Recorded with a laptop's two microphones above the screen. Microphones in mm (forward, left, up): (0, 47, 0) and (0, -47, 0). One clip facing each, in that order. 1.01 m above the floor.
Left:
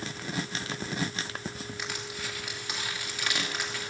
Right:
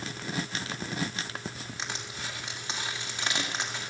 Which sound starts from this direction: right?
Crushing, at 1.8 s.